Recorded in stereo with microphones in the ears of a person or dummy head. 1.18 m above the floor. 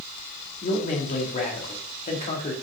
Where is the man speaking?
35° left (ahead or behind), 2 m.